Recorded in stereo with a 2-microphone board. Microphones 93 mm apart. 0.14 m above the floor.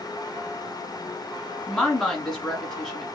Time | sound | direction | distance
1.7 | a woman speaking | 5° left (ahead or behind) | 1.7 m